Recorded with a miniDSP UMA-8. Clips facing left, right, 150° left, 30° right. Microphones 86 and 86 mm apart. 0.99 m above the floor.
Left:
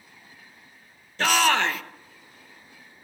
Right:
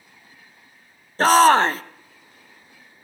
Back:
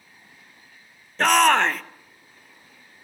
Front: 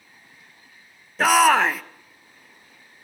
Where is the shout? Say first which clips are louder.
Right 8 dB, front 1 dB; 115° right, 0.9 m.